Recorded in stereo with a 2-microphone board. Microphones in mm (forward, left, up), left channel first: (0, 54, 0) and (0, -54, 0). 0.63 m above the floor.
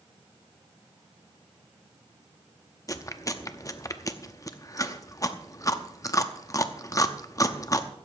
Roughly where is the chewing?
Left.